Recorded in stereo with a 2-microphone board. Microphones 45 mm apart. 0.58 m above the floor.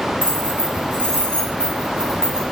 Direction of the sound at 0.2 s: 45° right (ahead or behind).